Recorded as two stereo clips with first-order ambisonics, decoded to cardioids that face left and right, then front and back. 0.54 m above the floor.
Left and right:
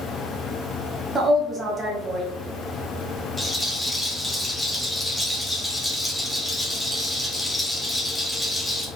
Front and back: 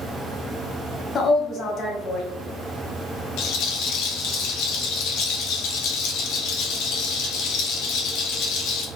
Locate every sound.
1.1 s a woman speaking: 30° right, 0.8 m
3.4 s a rattle: 10° left, 0.8 m